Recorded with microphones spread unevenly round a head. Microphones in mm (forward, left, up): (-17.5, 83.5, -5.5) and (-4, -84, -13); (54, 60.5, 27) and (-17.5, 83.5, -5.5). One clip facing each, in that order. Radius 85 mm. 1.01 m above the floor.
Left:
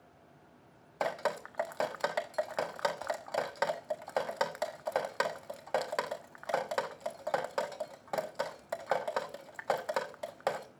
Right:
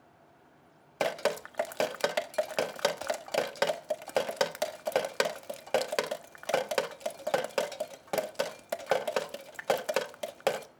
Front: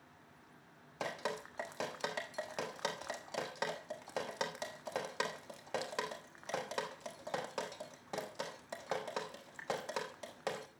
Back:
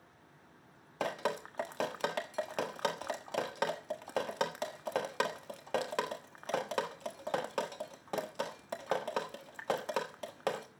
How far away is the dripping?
About 1.3 m.